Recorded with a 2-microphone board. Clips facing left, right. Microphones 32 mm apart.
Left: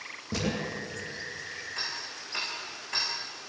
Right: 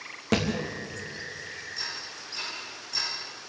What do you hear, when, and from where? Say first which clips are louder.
0.3 s a thud: right 6 dB; 70° right (ahead or behind), 6.5 m
1.8 s ticking: left 1 dB; 45° left (ahead or behind), 10 m